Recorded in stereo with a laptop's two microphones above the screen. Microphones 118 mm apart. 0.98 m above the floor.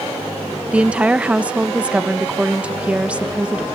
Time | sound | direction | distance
0.7 | a woman speaking | 10° right (ahead or behind) | ?